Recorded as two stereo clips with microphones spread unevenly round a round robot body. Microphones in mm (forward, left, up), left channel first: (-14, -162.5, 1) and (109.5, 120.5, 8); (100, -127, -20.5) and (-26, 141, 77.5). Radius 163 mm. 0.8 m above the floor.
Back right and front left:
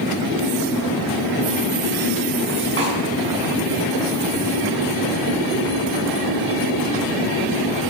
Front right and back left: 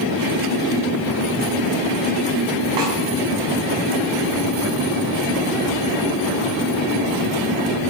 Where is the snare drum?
125° left, 7.5 m.